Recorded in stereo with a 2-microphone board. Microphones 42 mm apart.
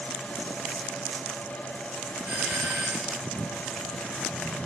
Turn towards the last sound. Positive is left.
turn(degrees=-70)  # may be behind; listen again after turning